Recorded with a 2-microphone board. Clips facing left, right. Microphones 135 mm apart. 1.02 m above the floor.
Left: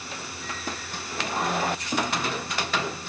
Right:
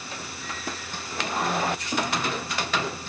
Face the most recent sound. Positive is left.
No sound to turn to.